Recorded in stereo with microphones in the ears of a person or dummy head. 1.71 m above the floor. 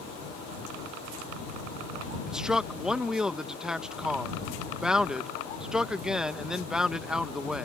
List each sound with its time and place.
2.3 s a man speaking: 5° right (ahead or behind)